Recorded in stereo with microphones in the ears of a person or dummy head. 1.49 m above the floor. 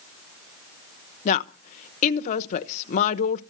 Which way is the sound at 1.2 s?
50° left (ahead or behind).